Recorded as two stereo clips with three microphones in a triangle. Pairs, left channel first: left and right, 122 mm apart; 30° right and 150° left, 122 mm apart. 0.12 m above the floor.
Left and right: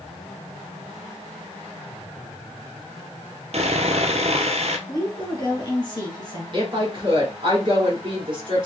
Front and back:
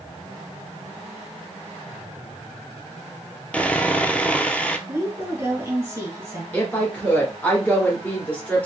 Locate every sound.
3.5 s sawing: 110° right, 0.6 m
4.9 s a woman speaking: 100° left, 1.8 m
6.5 s a woman speaking: 100° right, 2 m